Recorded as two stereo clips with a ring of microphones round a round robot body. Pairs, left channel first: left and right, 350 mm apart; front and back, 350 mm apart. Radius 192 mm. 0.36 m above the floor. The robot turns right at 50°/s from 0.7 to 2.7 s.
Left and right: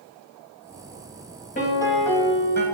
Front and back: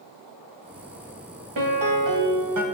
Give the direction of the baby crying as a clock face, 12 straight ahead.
I don't hear a baby crying.